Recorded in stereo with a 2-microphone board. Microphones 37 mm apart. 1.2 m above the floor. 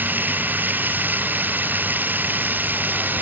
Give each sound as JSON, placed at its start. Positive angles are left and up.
{"t": 0.0, "sound": "running water", "side_deg": -55}